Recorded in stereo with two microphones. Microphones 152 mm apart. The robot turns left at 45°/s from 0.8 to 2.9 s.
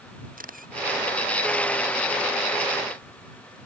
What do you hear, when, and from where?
0.4 s a camera shutter: 65° right (ahead or behind)